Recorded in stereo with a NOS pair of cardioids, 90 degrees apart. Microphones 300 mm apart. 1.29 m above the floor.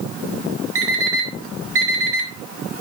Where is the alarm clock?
50° right, 3 m.